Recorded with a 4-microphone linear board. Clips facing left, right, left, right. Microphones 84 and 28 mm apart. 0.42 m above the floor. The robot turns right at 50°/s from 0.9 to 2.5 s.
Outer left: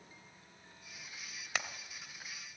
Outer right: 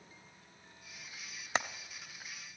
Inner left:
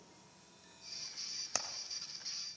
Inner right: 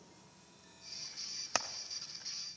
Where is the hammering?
30° right (ahead or behind), 0.6 m; by 1.7 s 35° right (ahead or behind), 0.6 m.